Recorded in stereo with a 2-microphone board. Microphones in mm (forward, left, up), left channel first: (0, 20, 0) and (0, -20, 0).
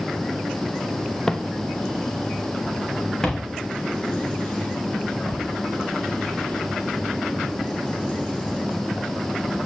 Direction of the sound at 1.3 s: 15° left (ahead or behind).